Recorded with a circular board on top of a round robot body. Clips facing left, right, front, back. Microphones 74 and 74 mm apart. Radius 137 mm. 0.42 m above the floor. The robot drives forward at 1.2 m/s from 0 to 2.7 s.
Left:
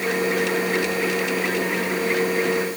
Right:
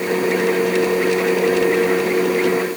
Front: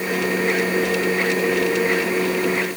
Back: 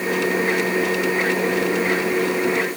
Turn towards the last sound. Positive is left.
No sound to turn to.